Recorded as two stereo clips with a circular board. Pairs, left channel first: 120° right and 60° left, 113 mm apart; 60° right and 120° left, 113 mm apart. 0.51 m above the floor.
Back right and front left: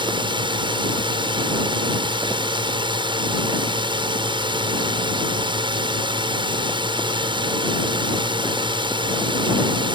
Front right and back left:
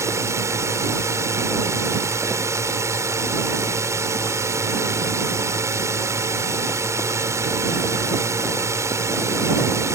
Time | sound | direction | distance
0.0 | a drone | 65° left | ?